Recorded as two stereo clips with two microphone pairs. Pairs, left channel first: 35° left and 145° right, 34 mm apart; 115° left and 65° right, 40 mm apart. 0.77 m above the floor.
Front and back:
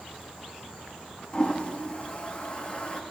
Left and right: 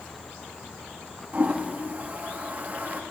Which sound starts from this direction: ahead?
A toilet flushing, at 1.3 s.